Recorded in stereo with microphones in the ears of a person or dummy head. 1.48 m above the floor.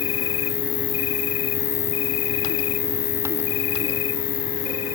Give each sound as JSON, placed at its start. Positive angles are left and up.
{"t": 0.0, "sound": "an insect", "side_deg": 70, "distance_m": 1.0}